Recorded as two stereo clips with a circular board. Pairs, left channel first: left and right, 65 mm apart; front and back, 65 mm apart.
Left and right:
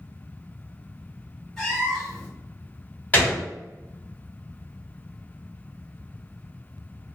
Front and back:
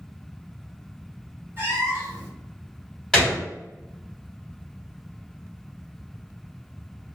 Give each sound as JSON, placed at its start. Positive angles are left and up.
{"t": 1.6, "sound": "a cat meowing", "azimuth_deg": 170, "distance_m": 1.1}
{"t": 3.1, "sound": "a gunshot", "azimuth_deg": 70, "distance_m": 1.0}